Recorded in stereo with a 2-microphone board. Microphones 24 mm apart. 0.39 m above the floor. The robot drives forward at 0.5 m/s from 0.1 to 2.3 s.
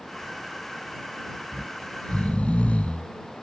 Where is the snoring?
70° left (ahead or behind); by 3.1 s 65° left (ahead or behind).